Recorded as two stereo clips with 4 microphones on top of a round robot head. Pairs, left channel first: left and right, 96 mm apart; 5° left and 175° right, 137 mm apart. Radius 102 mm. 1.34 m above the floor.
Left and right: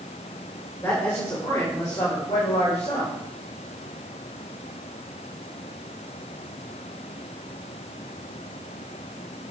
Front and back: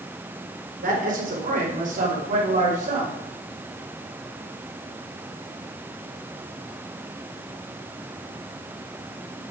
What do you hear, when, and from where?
0.8 s a man speaking: 165° left, 3 m; by 3.1 s 140° left, 3 m